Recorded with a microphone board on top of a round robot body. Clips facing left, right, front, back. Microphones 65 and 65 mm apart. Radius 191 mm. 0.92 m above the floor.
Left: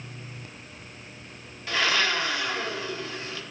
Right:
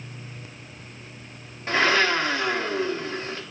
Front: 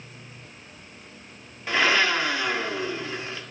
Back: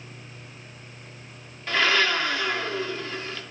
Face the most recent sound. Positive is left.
turn(degrees=-70)